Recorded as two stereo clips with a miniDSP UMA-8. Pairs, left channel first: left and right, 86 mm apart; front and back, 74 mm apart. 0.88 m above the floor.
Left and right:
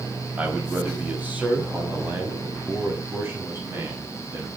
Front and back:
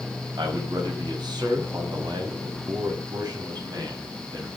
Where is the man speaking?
165° right, 4.5 m; by 4.5 s 150° right, 7 m.